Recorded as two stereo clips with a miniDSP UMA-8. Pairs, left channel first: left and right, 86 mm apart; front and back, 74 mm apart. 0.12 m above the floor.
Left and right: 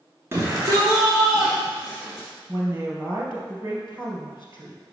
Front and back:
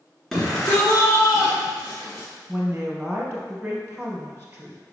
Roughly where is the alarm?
No alarm in this recording.